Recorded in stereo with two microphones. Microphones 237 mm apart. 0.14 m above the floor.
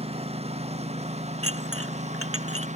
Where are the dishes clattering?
65° right (ahead or behind).